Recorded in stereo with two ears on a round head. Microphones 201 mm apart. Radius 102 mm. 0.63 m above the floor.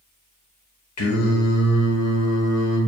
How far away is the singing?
About 1.3 m.